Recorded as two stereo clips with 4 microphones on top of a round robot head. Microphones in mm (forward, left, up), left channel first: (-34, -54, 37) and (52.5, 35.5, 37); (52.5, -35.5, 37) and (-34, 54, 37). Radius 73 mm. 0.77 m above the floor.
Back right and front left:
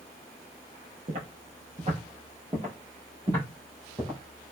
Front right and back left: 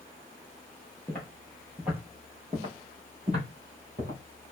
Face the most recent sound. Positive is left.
turn(degrees=115)